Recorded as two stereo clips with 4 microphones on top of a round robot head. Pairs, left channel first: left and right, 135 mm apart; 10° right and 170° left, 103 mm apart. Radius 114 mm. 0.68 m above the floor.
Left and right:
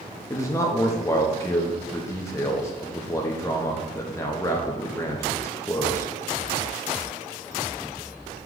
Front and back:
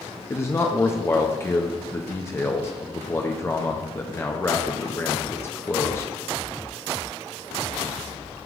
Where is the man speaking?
40° left, 0.8 m.